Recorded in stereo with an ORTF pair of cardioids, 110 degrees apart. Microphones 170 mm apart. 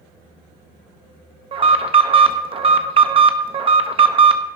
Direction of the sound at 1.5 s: 35° right.